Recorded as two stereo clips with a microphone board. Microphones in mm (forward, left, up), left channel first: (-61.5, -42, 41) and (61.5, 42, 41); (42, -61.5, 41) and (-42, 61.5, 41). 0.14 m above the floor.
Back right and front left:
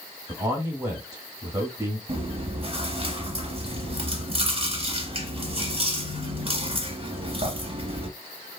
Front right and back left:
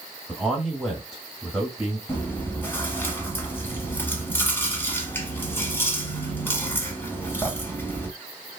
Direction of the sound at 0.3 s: 40° left.